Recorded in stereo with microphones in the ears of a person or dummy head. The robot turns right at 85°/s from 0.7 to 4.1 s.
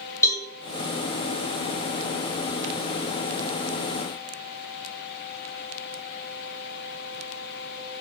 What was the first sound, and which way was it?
A cowbell, 20° left (ahead or behind).